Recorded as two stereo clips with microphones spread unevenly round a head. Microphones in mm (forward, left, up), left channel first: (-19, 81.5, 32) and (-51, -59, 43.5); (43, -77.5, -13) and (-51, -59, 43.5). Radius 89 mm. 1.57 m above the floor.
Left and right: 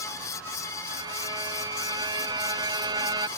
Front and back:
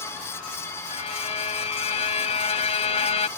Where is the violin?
35° right.